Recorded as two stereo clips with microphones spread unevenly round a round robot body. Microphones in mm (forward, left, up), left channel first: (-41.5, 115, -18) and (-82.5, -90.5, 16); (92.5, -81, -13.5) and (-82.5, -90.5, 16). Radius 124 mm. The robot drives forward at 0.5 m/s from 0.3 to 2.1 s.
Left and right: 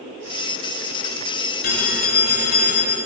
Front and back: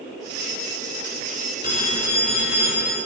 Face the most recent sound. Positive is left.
turn(degrees=115)